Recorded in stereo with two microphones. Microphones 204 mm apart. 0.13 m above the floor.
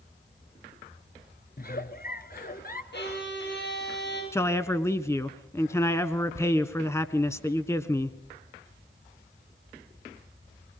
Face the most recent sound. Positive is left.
turn(degrees=15)  # may be behind; listen again after turning